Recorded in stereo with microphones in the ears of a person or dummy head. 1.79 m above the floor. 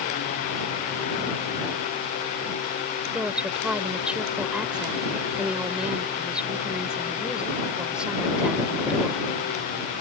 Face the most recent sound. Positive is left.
turn(degrees=0)  # may be behind; listen again after turning